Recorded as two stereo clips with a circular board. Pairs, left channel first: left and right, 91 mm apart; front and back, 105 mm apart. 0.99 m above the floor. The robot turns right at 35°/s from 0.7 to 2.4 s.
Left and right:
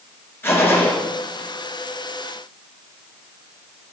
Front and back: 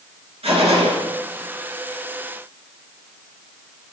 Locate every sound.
0.4 s a gunshot: 155° left, 2 m; by 0.9 s 165° left, 2 m